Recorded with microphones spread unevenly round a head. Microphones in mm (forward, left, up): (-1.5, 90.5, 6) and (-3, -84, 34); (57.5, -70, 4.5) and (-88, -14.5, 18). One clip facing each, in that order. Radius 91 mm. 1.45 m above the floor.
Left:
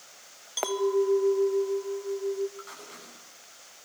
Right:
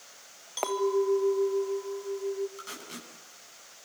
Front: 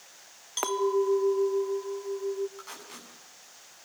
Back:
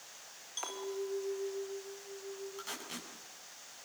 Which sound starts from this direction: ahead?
A clink, at 0.6 s.